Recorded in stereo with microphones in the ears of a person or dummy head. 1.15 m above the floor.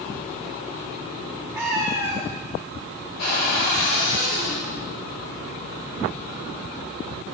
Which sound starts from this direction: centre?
A cat meowing, at 1.6 s.